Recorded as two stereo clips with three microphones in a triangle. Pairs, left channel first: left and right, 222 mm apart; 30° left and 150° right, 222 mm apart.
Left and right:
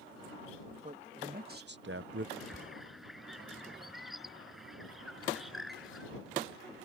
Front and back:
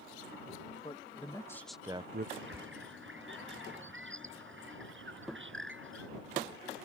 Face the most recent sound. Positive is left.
turn(degrees=180)